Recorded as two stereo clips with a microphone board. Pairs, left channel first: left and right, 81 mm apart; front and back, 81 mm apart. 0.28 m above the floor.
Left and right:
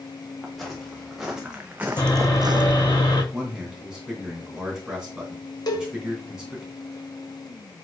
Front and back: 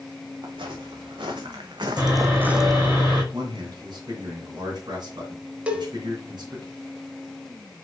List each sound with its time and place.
0.4 s footsteps: straight behind, 2.5 m; by 3.0 s 65° right, 0.8 m
2.0 s sawing: 115° left, 3 m
3.3 s a man speaking: 170° right, 2.5 m
5.7 s a cowbell: 105° left, 1.1 m